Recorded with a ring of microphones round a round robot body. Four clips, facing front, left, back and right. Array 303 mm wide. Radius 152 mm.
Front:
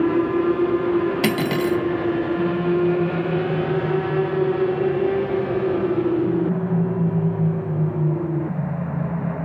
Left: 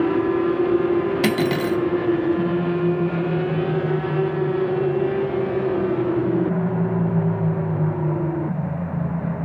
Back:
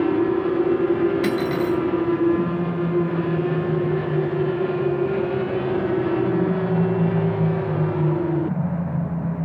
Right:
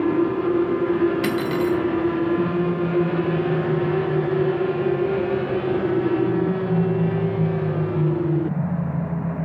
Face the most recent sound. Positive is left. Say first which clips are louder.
# left 1 dB, even
turn(degrees=40)